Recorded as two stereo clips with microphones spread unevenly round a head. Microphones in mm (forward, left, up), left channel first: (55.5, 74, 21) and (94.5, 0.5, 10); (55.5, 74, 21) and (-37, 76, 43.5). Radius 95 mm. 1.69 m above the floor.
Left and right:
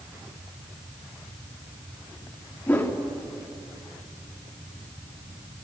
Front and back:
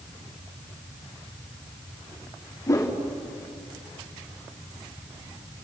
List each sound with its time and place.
2.7 s a whoosh: 55° left, 3 m